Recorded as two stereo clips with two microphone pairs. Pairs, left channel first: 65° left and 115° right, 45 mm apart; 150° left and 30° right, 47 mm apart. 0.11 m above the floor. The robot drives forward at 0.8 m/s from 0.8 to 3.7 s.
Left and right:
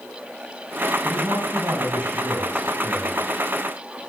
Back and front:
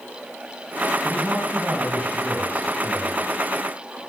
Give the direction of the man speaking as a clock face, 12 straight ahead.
3 o'clock.